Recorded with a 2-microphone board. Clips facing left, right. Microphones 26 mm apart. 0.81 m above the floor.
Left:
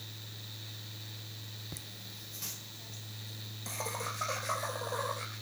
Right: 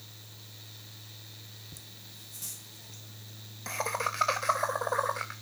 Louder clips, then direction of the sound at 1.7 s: Left 3 dB; 50° left (ahead or behind).